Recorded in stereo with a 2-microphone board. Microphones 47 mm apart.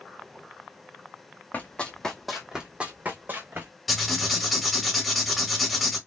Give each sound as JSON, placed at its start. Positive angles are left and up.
{"t": 1.5, "sound": "running footsteps", "side_deg": 35, "distance_m": 1.0}
{"t": 3.9, "sound": "writing", "side_deg": 5, "distance_m": 1.3}